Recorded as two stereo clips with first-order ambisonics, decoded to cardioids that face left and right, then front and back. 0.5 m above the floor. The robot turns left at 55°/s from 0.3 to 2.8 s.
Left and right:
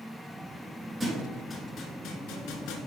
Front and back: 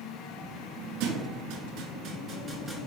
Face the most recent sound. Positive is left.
turn(degrees=95)